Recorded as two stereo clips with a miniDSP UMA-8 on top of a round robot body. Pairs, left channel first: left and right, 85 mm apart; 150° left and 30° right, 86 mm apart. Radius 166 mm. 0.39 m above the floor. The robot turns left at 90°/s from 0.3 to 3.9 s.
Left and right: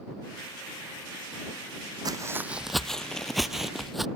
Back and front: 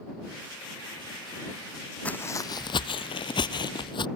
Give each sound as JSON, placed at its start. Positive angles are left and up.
{"t": 2.0, "sound": "footsteps", "azimuth_deg": -135}